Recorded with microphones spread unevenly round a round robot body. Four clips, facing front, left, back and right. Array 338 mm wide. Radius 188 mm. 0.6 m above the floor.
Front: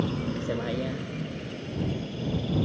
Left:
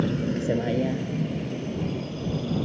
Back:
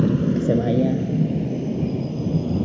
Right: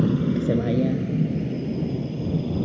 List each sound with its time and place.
0.0 s a vehicle: 155° right; by 2.7 s 160° right